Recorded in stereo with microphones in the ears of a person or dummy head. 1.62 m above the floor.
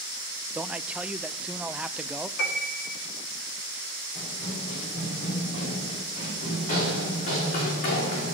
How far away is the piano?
About 2 m.